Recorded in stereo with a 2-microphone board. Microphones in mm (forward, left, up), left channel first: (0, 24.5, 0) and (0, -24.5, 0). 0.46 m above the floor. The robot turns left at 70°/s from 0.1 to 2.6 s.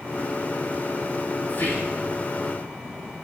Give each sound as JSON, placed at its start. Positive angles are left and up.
{"t": 1.5, "sound": "whispering", "azimuth_deg": 145, "distance_m": 5.5}